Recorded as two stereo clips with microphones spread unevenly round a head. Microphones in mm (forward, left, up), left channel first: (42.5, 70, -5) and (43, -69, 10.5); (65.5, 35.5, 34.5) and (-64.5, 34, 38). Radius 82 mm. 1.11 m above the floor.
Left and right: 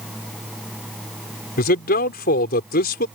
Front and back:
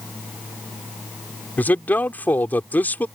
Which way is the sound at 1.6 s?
80° left.